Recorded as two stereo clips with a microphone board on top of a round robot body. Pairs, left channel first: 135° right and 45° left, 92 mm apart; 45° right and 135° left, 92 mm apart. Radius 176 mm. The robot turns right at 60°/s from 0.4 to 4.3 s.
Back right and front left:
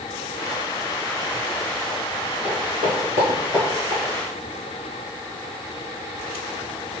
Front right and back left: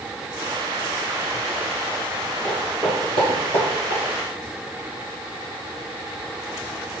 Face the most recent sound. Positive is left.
turn(degrees=180)